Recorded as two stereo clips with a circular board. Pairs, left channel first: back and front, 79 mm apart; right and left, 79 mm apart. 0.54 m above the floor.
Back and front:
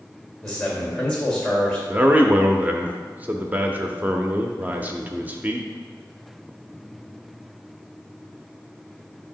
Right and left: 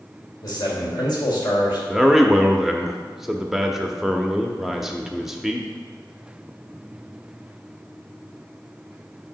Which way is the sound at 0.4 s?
100° right.